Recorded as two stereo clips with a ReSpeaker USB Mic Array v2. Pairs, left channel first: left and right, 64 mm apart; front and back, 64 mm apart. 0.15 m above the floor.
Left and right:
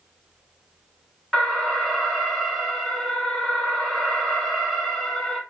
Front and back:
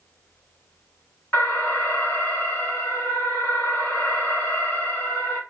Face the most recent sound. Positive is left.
turn(degrees=5)